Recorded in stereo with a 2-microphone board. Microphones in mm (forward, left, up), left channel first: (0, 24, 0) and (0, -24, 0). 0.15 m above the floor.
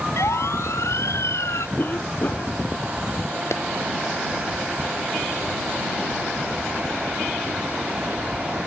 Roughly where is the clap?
Left.